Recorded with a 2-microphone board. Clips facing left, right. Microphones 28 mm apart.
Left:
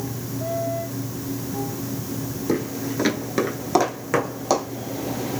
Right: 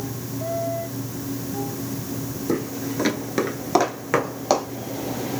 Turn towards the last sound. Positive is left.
turn(degrees=-20)  # may be behind; listen again after turning